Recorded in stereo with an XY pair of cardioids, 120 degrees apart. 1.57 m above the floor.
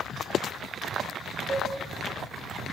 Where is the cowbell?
20° right, 1.2 m.